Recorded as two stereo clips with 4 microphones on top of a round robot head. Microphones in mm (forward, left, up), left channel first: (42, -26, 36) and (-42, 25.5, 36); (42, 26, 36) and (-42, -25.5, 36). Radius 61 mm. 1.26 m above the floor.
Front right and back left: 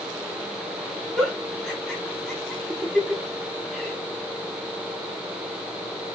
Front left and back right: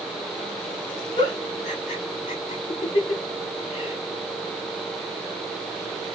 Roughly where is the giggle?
Ahead left.